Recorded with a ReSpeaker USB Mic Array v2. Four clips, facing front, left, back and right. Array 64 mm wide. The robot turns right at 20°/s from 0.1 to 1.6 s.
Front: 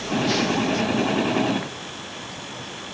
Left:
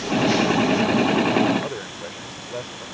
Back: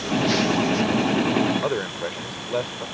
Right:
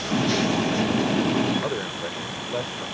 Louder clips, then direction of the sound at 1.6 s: Right 3 dB, back 10 dB; 170° right.